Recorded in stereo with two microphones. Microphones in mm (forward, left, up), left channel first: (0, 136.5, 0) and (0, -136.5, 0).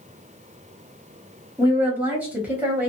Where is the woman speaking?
5° right (ahead or behind), 1.2 m.